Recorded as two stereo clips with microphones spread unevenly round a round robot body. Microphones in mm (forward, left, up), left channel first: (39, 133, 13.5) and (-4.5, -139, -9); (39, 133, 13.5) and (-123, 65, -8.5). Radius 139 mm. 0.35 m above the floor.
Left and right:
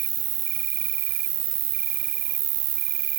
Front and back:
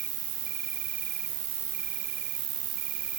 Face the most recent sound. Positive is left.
turn(degrees=-100)